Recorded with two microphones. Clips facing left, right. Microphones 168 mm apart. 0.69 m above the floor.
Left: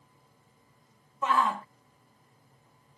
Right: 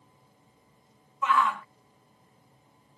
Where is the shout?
30° left (ahead or behind).